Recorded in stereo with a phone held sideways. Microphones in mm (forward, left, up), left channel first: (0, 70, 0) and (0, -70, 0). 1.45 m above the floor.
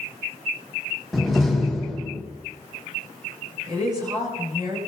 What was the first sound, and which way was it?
A door slam, centre (ahead or behind).